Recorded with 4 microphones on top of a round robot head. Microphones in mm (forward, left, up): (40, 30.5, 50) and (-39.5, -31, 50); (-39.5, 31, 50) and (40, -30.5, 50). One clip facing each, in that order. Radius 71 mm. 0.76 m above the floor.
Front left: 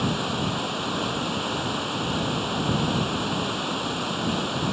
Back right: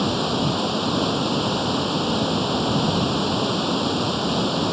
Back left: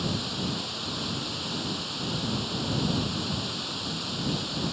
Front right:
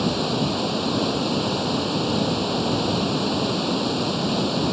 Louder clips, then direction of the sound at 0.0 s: Back right 4 dB, front right 9 dB; 75° right.